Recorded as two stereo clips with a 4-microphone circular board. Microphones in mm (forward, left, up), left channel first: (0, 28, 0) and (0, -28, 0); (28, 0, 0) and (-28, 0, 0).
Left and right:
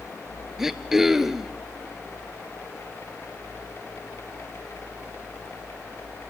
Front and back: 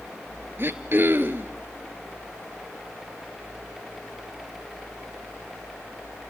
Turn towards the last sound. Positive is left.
turn(degrees=-170)